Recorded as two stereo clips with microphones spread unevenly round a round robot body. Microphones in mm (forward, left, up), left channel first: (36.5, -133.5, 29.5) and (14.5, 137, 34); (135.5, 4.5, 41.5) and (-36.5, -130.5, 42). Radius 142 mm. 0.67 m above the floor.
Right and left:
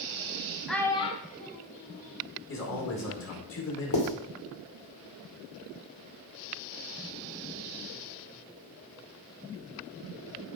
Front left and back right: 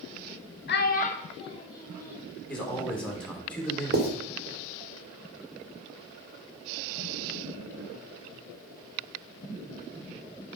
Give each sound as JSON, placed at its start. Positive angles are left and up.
{"t": 0.7, "sound": "a child speaking", "azimuth_deg": 5, "distance_m": 1.1}
{"t": 2.5, "sound": "a man speaking", "azimuth_deg": -45, "distance_m": 2.5}
{"t": 3.9, "sound": "writing", "azimuth_deg": -100, "distance_m": 1.9}